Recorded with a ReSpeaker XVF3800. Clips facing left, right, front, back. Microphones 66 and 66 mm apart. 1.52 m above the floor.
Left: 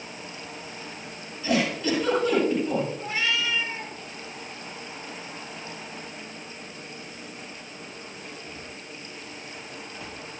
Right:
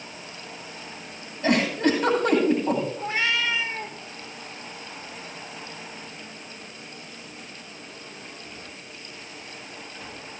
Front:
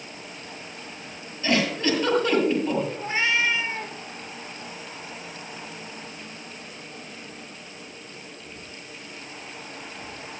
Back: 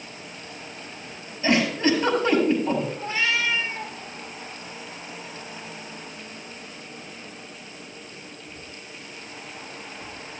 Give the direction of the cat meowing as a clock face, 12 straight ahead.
2 o'clock.